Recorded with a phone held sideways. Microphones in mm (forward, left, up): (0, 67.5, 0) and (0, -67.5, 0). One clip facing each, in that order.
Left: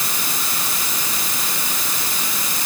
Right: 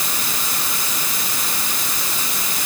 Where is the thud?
I don't hear a thud.